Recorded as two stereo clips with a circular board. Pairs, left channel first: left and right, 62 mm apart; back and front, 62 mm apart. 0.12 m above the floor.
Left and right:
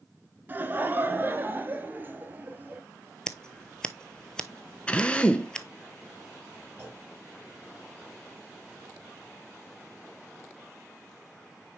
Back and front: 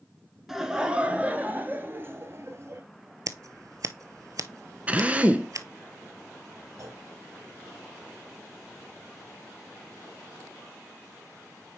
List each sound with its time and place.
0.5 s laughter: 80° right, 1.2 m; by 2.8 s 35° right, 2 m
3.3 s scissors: 15° left, 0.6 m
4.9 s a drill: 40° left, 0.7 m
6.8 s a clunk: 30° right, 3 m